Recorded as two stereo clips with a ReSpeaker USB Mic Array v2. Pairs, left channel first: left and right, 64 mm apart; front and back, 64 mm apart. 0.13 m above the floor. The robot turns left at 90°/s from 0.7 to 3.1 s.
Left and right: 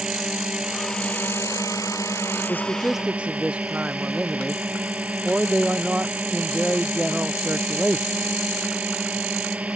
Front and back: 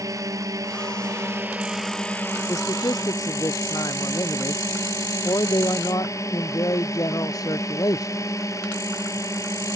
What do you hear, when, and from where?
0.0 s a drone: 170° right; by 9.8 s 25° right
2.5 s a man speaking: 40° left; by 8.2 s 20° right